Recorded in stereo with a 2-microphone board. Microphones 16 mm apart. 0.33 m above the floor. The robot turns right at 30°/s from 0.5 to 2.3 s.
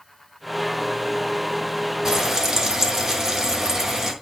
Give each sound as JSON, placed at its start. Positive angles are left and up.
{"t": 2.0, "sound": "frying", "side_deg": -40, "distance_m": 1.3}